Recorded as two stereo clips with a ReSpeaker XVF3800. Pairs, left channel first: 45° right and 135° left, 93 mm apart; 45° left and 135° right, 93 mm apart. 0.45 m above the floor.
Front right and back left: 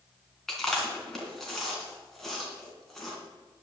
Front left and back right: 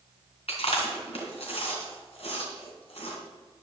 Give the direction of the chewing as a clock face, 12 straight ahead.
11 o'clock.